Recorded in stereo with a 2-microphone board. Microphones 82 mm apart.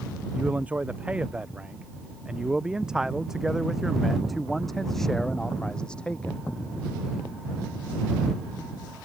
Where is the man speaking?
20° right (ahead or behind); by 6.5 s 15° left (ahead or behind).